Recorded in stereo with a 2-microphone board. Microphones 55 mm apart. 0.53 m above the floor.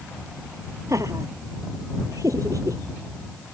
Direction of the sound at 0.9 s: 65° right (ahead or behind).